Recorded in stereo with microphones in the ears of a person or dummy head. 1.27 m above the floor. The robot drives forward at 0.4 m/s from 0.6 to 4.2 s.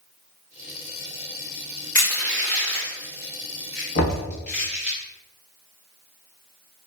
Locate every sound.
1.9 s crushing: 15° left (ahead or behind), 1.3 m; by 5.0 s 10° left (ahead or behind), 2 m
4.0 s knocking: 75° left (ahead or behind), 1.2 m; by 4.3 s 70° left (ahead or behind), 1.2 m